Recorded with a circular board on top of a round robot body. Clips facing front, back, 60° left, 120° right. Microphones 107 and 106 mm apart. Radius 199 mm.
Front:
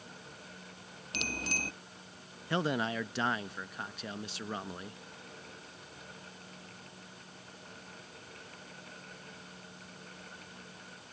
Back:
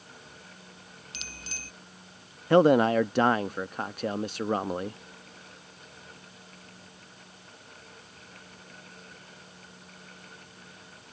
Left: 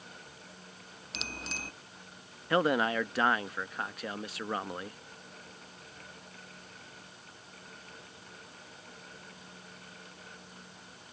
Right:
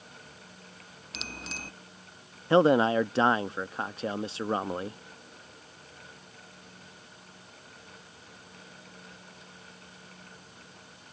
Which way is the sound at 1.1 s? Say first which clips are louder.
Front 10 dB, even; 30° right.